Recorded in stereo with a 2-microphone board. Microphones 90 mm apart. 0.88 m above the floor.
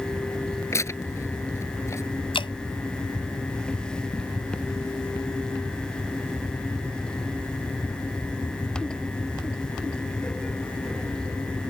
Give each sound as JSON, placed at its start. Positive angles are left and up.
{"t": 0.7, "sound": "tearing paper", "side_deg": 30}
{"t": 2.3, "sound": "dripping", "side_deg": 70}